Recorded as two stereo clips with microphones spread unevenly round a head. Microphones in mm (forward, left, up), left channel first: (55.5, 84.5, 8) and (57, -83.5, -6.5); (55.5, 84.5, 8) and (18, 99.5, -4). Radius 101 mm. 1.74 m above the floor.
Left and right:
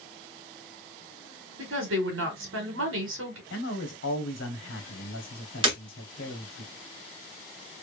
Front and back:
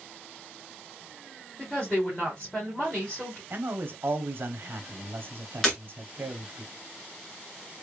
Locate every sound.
1.6 s a woman speaking: 100° right, 1.7 m
3.5 s a man speaking: 120° left, 1.2 m
5.6 s breaking glass: 50° right, 1.7 m